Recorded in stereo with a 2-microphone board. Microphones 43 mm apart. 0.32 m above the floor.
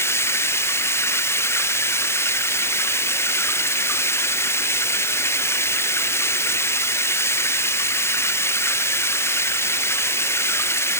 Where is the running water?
80° left.